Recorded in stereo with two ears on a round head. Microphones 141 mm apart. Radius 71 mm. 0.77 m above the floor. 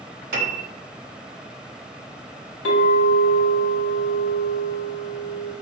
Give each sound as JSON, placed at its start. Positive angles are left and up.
{"t": 0.3, "sound": "a piano", "side_deg": -60, "distance_m": 1.1}
{"t": 2.6, "sound": "a clink", "side_deg": 80, "distance_m": 1.7}